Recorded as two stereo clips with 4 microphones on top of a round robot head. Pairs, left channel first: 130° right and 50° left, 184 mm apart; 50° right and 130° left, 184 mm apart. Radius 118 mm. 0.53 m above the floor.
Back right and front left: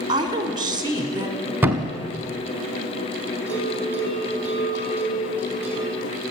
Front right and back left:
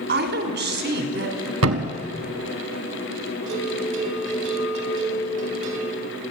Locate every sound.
0.1 s a woman speaking: 115° left, 1.9 m
1.6 s a thud: 130° left, 0.8 m
3.5 s a bell: 135° left, 3.5 m